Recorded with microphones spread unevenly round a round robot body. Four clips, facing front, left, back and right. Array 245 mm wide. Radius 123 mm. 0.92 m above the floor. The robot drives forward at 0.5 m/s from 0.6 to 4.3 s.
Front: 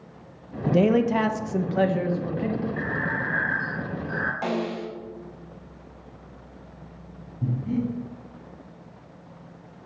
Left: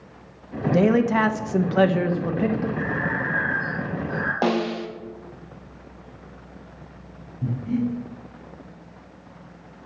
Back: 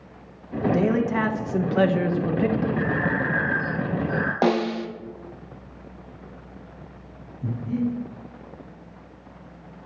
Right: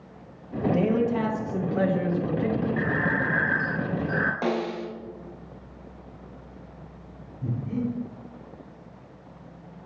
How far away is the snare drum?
About 0.8 m.